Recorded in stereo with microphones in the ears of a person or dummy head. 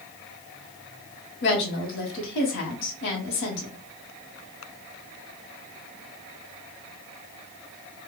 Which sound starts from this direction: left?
A woman speaking, at 1.4 s.